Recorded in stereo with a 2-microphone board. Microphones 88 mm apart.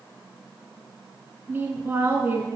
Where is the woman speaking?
25° right (ahead or behind), 1.2 m.